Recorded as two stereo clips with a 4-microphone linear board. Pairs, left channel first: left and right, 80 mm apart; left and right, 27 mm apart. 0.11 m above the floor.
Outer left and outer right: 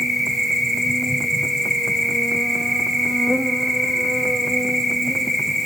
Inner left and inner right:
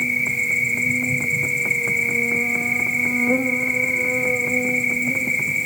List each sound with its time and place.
0.0 s an insect: centre (ahead or behind), 0.8 m